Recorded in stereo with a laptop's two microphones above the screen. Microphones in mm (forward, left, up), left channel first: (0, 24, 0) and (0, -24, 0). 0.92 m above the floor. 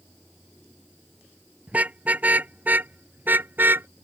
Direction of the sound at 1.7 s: 30° right (ahead or behind).